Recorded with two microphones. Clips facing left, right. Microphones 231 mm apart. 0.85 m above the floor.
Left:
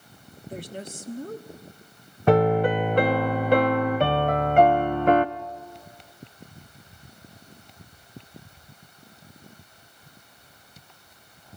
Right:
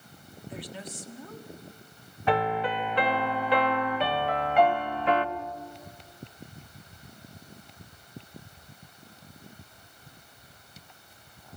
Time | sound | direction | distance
0.5 | a woman speaking | 50° left (ahead or behind) | 1.4 m
2.3 | a piano | 50° left (ahead or behind) | 0.8 m